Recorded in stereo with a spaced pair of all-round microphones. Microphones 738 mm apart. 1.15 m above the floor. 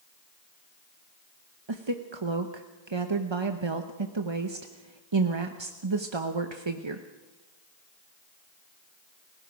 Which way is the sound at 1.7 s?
40° right (ahead or behind).